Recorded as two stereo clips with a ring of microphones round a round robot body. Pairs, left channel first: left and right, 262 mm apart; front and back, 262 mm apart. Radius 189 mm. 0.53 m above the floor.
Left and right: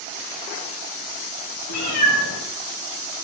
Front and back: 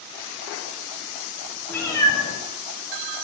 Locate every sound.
1.7 s a cat meowing: 85° left, 2 m; by 3.2 s 40° left, 1.6 m